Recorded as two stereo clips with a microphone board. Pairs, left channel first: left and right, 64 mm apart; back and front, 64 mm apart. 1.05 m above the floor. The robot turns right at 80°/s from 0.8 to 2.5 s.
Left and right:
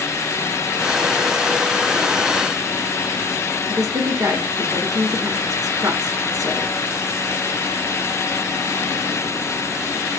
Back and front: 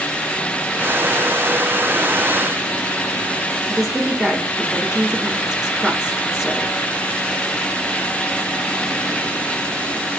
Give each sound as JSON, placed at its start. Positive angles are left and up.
{"t": 3.7, "sound": "a woman speaking", "azimuth_deg": -85, "distance_m": 1.4}